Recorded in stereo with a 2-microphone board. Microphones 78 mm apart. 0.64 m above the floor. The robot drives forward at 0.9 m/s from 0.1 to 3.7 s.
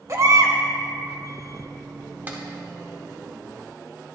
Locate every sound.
0.1 s a baby crying: 45° right (ahead or behind), 1.4 m; by 0.6 s 60° right (ahead or behind), 1.1 m
2.3 s a clap: 25° right (ahead or behind), 1.6 m; by 2.4 s 20° right (ahead or behind), 1.7 m